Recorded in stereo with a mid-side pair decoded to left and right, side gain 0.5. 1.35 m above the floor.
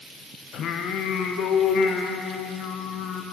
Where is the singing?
65° left, 0.7 m.